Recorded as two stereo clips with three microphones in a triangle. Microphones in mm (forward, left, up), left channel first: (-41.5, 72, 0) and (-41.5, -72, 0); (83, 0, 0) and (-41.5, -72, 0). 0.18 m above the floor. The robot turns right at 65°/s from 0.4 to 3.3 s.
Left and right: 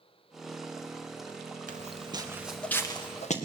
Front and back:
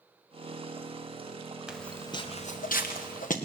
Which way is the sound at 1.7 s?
65° right.